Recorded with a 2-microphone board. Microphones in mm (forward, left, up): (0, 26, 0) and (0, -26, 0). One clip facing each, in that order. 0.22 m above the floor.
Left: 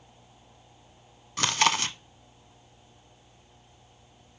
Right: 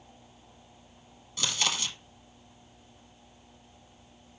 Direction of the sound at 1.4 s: 55° left (ahead or behind).